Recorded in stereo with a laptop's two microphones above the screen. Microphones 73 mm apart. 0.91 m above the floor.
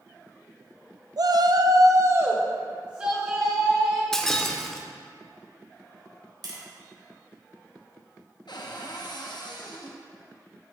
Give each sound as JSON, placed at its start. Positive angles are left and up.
{"t": 1.2, "sound": "a shout", "side_deg": -60, "distance_m": 0.6}
{"t": 4.1, "sound": "breaking glass", "side_deg": 5, "distance_m": 0.6}
{"t": 6.4, "sound": "tapping", "side_deg": -70, "distance_m": 1.3}
{"t": 8.5, "sound": "a cupboard door", "side_deg": 80, "distance_m": 0.7}